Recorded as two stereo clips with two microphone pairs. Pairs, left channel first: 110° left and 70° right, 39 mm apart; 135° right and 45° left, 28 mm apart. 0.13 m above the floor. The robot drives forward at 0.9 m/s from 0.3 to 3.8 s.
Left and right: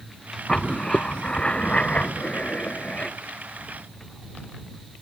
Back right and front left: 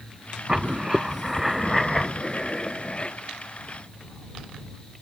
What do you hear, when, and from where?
0.5 s writing: 60° left; by 3.2 s 165° left